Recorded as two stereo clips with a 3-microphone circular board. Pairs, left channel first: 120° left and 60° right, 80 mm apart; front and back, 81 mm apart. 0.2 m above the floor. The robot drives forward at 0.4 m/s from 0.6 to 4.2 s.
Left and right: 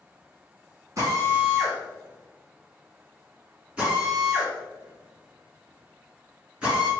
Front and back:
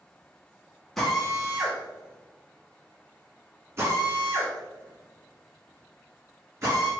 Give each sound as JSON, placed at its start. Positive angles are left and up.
{"t": 1.0, "sound": "a drill", "azimuth_deg": -85, "distance_m": 1.5}